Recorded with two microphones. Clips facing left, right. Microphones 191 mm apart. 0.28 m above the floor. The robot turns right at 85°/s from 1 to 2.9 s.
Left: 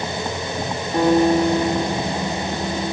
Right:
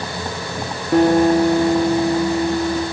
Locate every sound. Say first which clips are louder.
0.9 s a guitar: right 3 dB; 85° right, 4 m; by 2.8 s 70° left, 4 m